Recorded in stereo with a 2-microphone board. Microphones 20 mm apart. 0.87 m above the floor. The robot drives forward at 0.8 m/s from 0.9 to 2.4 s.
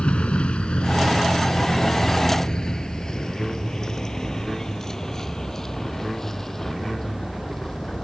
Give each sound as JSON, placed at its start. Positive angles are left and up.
{"t": 0.0, "sound": "a vehicle", "side_deg": 90}